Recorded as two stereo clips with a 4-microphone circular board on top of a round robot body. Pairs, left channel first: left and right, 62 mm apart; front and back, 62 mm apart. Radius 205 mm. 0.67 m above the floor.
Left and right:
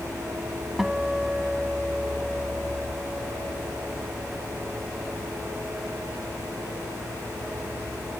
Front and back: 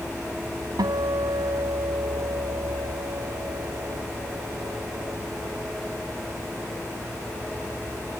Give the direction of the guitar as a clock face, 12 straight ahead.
6 o'clock.